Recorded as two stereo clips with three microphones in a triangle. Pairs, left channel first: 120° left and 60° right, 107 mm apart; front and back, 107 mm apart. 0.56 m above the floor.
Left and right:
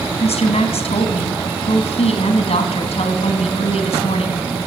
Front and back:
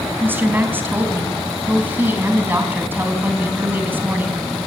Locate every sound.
0.2 s a woman speaking: 110° left, 4 m